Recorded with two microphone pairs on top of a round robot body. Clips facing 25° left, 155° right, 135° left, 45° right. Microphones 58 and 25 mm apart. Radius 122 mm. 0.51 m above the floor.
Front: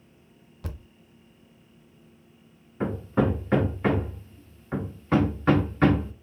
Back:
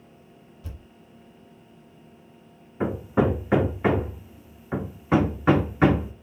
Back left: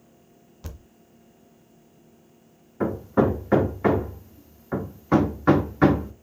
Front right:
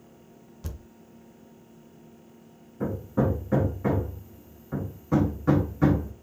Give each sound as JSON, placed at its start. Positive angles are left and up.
{"t": 0.6, "sound": "a thud", "azimuth_deg": 55, "distance_m": 0.5}
{"t": 2.8, "sound": "hammering", "azimuth_deg": 120, "distance_m": 0.7}